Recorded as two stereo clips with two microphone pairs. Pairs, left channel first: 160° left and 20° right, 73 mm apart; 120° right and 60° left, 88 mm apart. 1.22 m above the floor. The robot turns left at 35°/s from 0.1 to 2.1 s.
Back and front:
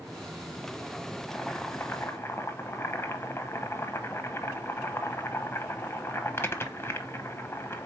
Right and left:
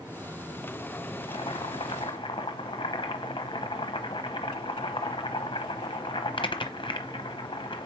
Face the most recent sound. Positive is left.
turn(degrees=-145)